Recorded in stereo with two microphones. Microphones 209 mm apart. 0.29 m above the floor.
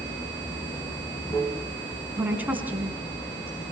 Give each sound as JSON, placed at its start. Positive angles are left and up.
{"t": 0.0, "sound": "running water", "side_deg": 15, "distance_m": 3.0}
{"t": 2.2, "sound": "a woman speaking", "side_deg": -10, "distance_m": 2.5}